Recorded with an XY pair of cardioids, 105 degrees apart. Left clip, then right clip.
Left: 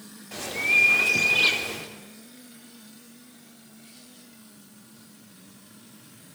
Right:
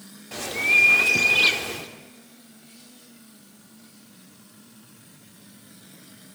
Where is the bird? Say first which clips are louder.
Right 2 dB; 20° right, 3 m.